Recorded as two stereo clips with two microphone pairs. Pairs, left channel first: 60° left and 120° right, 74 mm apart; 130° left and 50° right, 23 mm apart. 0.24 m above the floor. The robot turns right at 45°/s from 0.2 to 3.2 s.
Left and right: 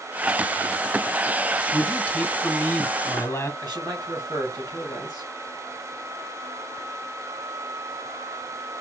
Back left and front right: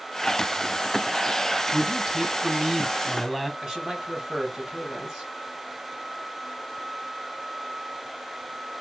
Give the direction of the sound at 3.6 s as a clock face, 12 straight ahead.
4 o'clock.